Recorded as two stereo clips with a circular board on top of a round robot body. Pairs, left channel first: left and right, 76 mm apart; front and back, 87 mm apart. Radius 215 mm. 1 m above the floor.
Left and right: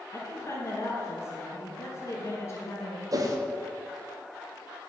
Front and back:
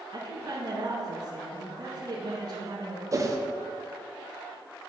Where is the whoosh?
130° right, 0.8 m.